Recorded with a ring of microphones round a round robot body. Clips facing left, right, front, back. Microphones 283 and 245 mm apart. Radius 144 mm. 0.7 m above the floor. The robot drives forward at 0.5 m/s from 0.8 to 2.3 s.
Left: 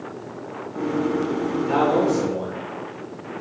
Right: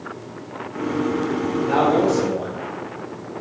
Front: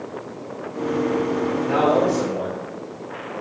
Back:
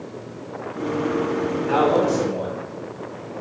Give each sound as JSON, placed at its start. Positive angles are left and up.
{"t": 1.7, "sound": "a man speaking", "azimuth_deg": 155, "distance_m": 2.5}